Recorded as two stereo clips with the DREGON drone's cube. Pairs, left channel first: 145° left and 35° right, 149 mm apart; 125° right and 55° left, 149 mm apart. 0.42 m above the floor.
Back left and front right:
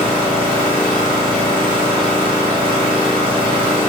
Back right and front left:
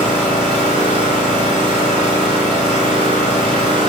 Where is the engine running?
10° left, 1.7 m.